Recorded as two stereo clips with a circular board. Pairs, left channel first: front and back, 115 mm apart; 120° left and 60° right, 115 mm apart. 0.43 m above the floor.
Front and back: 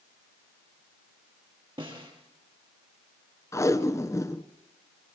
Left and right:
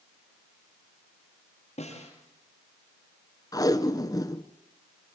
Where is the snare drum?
135° left, 5.5 m.